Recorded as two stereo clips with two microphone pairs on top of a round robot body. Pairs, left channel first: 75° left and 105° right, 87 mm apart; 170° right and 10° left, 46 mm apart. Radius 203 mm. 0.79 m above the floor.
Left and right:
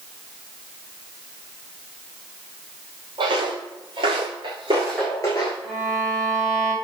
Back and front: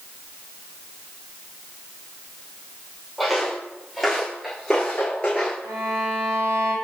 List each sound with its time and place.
3.2 s footsteps: 75° right, 1.7 m; by 5.5 s 110° left, 0.9 m
5.6 s a violin: 15° right, 4 m